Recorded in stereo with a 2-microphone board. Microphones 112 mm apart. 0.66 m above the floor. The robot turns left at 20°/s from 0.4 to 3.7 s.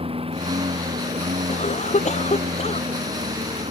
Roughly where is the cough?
Left.